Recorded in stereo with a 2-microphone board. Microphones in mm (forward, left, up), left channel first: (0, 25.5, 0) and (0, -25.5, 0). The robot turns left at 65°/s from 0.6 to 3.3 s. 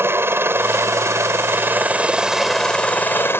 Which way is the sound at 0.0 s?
60° right.